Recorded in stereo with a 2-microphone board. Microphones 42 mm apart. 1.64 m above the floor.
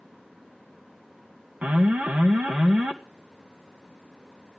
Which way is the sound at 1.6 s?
40° right (ahead or behind).